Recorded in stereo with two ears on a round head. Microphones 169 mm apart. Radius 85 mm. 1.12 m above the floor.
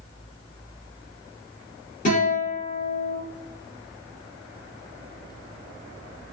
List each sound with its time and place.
2.0 s a guitar: 45° left (ahead or behind), 1.7 m